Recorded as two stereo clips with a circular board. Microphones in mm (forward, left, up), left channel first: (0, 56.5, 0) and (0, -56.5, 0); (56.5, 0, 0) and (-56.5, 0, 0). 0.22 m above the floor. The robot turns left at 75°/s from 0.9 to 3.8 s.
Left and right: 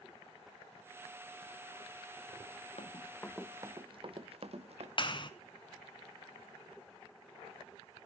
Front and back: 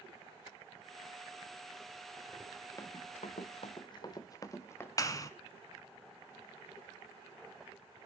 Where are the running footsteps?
60° left, 1.3 m; by 4.9 s 70° right, 1.8 m.